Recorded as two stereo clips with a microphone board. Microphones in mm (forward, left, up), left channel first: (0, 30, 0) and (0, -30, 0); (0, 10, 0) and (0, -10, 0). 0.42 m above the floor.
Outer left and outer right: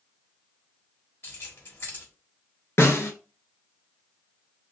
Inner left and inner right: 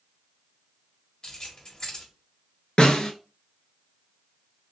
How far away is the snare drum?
About 0.9 m.